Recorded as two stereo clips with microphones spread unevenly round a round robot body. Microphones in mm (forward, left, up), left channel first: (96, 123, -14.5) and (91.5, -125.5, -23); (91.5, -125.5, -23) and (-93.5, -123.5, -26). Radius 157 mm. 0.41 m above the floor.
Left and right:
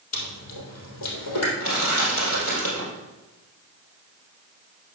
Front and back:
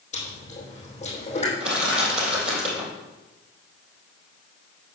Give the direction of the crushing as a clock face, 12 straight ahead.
7 o'clock.